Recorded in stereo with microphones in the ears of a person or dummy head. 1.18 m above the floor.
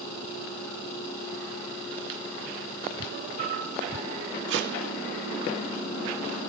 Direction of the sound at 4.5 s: 70° right (ahead or behind).